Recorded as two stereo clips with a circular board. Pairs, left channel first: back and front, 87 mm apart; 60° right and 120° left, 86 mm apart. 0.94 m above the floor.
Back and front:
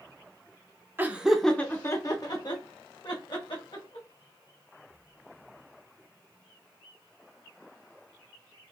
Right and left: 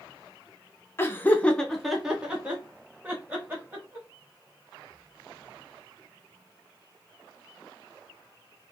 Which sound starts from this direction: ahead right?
Laughter, at 1.0 s.